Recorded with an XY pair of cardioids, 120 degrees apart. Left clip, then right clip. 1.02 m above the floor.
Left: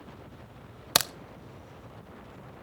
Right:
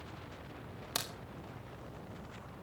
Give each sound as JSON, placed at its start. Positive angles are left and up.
{"t": 0.9, "sound": "a crack", "azimuth_deg": 70, "distance_m": 0.9}